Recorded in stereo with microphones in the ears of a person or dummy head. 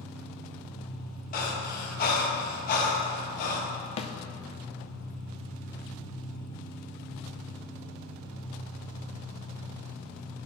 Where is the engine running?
75° left (ahead or behind), 1.3 m.